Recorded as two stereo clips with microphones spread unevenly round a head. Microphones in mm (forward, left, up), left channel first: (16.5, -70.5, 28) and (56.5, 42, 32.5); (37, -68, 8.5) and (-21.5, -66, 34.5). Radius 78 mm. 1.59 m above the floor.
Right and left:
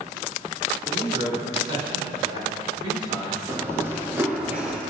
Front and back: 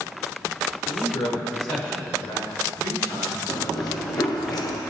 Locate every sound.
0.8 s a man speaking: 15° left, 6 m; by 3.4 s 20° left, 8.5 m
3.5 s running footsteps: 5° left, 3.5 m; by 4.8 s 10° right, 3 m